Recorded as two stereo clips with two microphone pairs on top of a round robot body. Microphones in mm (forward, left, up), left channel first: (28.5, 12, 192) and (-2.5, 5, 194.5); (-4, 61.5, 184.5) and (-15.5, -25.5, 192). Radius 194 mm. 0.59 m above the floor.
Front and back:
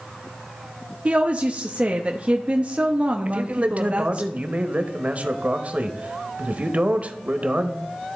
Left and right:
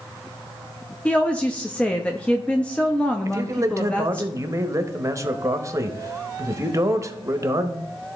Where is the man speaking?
145° right, 1.1 m.